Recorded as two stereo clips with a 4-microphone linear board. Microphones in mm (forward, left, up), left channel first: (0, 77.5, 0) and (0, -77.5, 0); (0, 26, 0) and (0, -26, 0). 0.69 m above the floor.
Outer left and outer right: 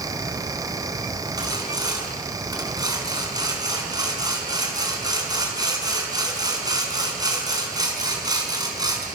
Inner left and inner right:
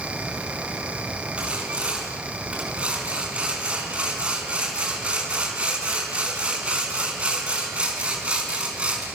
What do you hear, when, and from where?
1.4 s sawing: 25° right (ahead or behind), 5 m